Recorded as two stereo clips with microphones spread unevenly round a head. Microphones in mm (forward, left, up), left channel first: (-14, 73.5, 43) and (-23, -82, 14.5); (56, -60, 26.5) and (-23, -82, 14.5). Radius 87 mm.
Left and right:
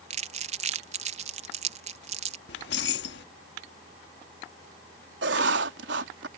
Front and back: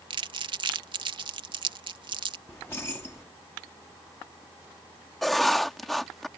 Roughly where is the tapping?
No tapping in this recording.